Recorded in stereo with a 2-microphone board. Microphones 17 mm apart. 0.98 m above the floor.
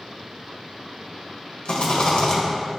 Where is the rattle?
65° left (ahead or behind), 1.5 m.